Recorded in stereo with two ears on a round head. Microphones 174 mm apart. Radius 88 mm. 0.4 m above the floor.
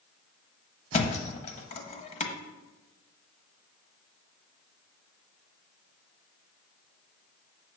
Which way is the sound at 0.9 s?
35° left (ahead or behind).